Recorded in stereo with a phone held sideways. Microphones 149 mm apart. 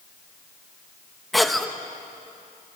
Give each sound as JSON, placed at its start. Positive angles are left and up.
{"t": 1.3, "sound": "a cough", "side_deg": 0, "distance_m": 1.5}